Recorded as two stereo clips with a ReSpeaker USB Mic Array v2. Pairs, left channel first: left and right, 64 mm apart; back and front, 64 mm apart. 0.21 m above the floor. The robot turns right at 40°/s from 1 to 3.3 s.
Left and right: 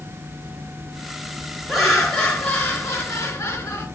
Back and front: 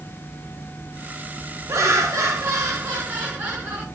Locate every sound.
1.7 s laughter: 5° right, 3 m; by 3.9 s 60° left, 3 m